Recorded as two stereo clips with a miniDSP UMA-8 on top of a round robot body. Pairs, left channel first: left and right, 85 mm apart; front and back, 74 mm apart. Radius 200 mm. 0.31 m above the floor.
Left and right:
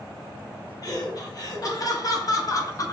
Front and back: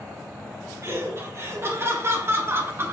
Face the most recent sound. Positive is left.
turn(degrees=130)